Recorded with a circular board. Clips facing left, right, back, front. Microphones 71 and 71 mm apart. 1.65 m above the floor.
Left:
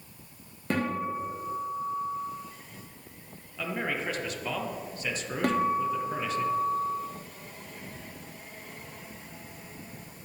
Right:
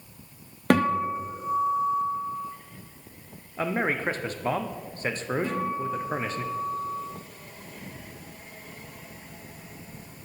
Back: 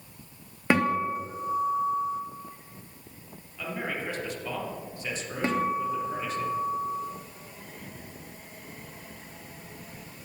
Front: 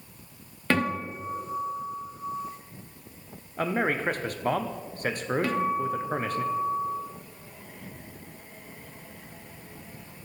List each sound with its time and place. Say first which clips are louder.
0.7 s a guitar: right 7 dB, back 3 dB; 105° right, 1.0 m
3.6 s a man speaking: right 5 dB, front 7 dB; 40° right, 0.6 m
5.4 s a guitar: left 3 dB, back 3 dB; 115° left, 1.2 m